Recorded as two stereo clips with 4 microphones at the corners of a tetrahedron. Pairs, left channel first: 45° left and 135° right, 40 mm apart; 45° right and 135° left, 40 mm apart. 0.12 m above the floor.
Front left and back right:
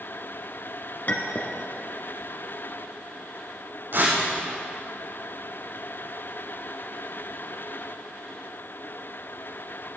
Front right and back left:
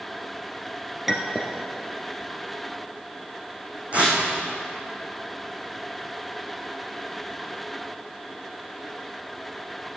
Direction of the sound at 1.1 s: 50° left.